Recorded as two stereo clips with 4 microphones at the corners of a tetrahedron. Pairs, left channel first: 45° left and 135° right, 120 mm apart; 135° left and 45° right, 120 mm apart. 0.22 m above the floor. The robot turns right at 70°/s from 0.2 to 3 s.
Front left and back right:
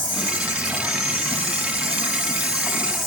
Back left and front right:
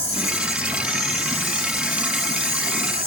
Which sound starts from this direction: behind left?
An insect, at 0.0 s.